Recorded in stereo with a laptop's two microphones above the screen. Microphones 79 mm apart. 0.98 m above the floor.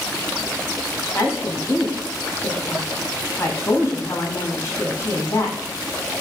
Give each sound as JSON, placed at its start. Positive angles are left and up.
{"t": 1.1, "sound": "a woman speaking", "side_deg": 35, "distance_m": 6.5}